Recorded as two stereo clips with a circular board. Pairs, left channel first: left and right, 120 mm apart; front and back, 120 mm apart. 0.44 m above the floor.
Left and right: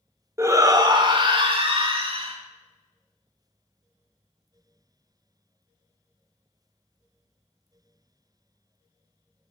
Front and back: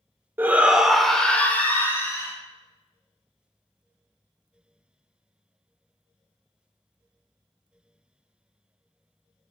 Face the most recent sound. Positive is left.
turn(degrees=-65)